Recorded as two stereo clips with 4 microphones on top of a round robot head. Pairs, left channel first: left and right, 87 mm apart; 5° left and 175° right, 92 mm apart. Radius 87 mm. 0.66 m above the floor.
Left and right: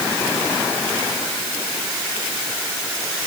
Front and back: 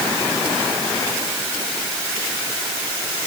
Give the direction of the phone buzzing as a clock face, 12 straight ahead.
No phone buzzing in this recording.